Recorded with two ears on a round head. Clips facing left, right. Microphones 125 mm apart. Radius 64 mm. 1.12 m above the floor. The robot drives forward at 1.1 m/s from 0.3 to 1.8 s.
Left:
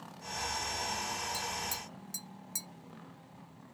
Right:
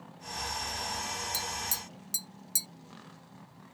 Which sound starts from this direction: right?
Tapping, at 1.3 s.